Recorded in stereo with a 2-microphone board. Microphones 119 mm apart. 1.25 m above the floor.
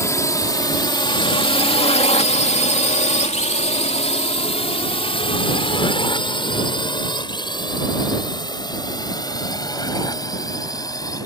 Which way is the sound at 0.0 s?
25° left (ahead or behind).